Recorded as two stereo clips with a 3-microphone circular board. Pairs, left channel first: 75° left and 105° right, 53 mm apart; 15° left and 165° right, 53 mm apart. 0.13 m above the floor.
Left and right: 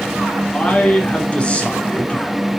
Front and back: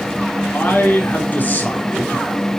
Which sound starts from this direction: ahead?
A man speaking, at 0.5 s.